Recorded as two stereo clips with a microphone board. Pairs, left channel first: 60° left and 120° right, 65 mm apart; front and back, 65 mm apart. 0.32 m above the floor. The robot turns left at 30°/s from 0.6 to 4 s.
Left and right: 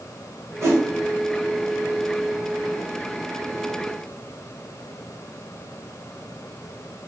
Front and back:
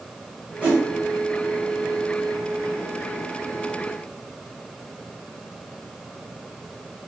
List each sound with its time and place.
0.6 s a whoosh: 120° right, 1.3 m; by 0.8 s 125° right, 1.3 m